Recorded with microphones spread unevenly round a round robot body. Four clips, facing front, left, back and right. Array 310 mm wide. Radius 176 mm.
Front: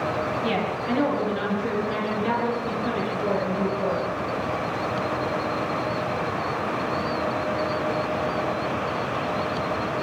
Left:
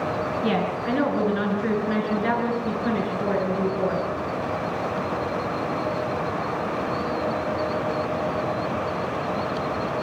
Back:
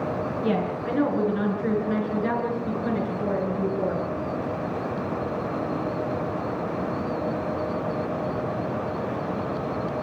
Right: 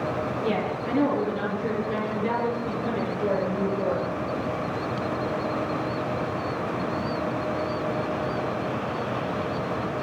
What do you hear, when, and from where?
0.4 s a woman speaking: 100° left, 9.5 m; by 4.0 s 95° left, 12.5 m